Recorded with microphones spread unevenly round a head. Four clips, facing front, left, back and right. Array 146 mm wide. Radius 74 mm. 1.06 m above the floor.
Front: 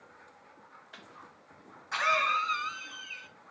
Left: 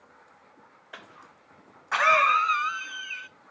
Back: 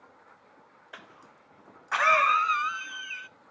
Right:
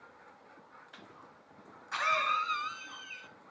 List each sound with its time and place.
0.9 s a cough: 115° left, 0.7 m